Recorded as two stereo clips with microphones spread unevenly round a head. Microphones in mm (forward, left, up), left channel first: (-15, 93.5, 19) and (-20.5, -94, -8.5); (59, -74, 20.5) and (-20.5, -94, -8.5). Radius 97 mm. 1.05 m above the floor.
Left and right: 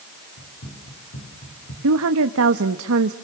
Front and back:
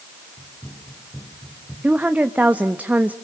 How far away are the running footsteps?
About 6.5 m.